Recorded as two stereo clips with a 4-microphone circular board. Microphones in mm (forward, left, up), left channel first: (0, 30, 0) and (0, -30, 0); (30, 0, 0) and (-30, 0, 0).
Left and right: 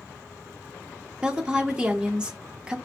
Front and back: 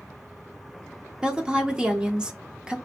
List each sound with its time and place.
1.2 s a woman speaking: 135° right, 0.7 m